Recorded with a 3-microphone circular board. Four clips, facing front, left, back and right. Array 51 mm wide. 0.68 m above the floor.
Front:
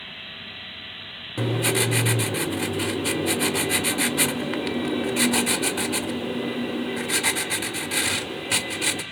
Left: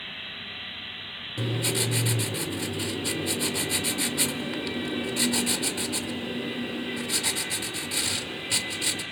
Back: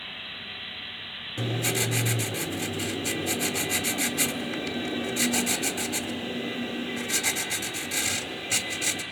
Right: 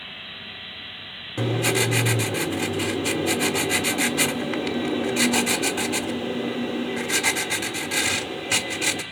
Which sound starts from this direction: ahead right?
Writing, at 1.4 s.